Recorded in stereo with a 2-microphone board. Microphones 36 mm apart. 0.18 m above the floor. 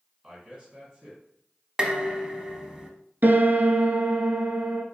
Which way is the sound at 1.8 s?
20° right (ahead or behind).